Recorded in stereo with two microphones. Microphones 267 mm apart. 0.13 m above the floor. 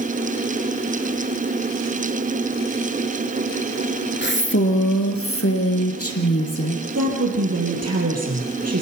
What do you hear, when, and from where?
4.2 s a woman speaking: 40° left (ahead or behind), 1.7 m; by 6.8 s 65° left (ahead or behind), 4.5 m
7.0 s a woman speaking: 70° right (ahead or behind), 4.5 m